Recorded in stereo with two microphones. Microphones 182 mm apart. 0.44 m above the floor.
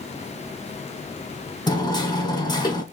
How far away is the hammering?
About 1.8 m.